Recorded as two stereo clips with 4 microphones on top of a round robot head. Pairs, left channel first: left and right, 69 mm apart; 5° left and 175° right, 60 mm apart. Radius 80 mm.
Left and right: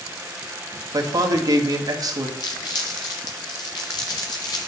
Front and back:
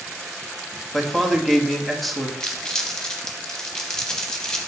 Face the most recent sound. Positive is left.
turn(degrees=80)